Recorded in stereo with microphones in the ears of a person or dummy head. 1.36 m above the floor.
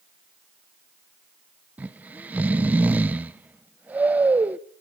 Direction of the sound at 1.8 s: 15° right (ahead or behind).